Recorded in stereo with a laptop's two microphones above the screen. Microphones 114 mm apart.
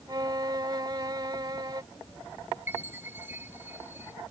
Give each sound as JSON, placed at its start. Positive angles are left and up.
{"t": 0.1, "sound": "a violin", "side_deg": -35}
{"t": 2.7, "sound": "a chime", "side_deg": -20}